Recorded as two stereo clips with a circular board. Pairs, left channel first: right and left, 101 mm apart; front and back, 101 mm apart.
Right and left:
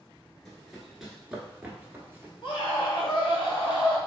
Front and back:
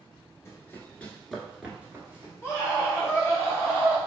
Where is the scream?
65° right, 1.1 m.